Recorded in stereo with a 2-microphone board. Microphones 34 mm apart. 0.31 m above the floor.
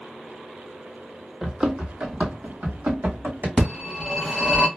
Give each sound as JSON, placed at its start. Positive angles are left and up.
{"t": 1.4, "sound": "running footsteps", "side_deg": -15, "distance_m": 0.8}
{"t": 3.6, "sound": "a phone ringing", "side_deg": 5, "distance_m": 1.1}